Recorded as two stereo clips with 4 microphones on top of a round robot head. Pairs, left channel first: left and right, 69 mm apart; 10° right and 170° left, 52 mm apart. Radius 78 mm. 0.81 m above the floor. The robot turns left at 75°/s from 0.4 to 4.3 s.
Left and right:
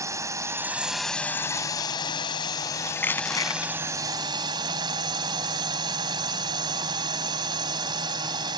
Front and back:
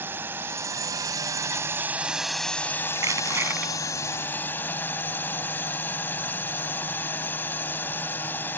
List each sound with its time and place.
0.0 s a drone: 135° right; by 8.6 s 65° right
3.0 s crushing: 160° left; by 3.7 s 105° left